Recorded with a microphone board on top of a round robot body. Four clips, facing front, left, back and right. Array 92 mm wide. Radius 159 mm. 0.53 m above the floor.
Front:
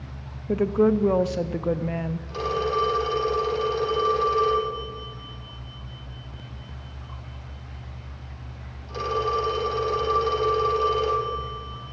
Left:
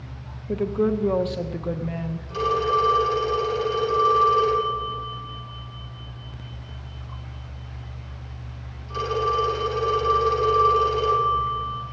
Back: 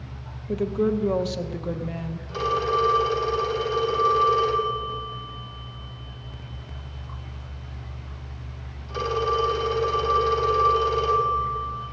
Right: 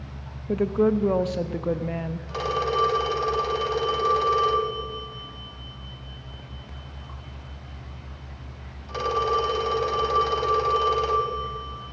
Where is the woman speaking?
25° right, 0.7 m.